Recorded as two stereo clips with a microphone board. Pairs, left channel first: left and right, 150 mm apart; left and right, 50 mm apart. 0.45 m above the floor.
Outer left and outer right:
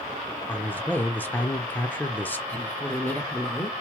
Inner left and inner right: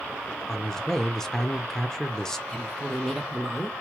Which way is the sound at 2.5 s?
10° left (ahead or behind).